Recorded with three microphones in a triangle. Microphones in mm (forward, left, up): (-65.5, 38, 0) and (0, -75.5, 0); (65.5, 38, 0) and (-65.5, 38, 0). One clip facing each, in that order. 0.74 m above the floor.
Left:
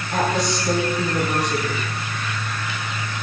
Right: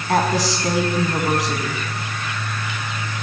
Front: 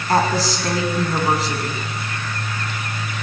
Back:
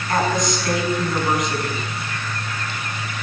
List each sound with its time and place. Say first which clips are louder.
0.1 s a woman speaking: right 3 dB, front 2 dB; 55° right, 6.5 m